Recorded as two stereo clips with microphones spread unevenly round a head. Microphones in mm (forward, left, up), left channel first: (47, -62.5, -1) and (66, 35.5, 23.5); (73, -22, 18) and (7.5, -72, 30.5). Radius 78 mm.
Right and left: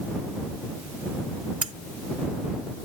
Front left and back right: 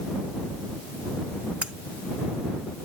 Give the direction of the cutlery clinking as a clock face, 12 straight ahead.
7 o'clock.